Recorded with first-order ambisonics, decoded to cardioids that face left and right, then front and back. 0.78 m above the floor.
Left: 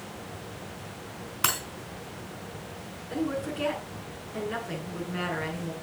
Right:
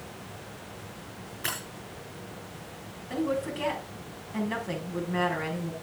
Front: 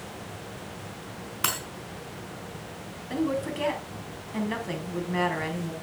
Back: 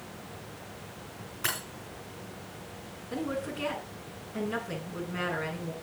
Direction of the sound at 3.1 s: 25° right.